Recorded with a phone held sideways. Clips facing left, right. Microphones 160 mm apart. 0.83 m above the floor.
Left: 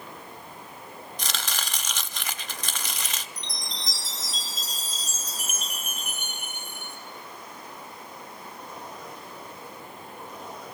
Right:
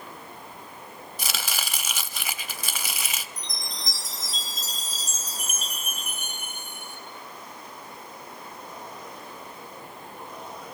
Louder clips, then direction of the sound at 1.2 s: Right 1 dB; 10° right (ahead or behind).